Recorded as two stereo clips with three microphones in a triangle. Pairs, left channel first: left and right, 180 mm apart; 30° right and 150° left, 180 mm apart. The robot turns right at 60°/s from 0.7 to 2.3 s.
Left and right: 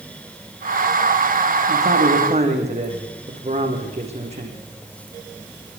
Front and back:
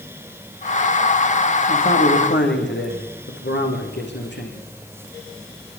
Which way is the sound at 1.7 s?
75° right.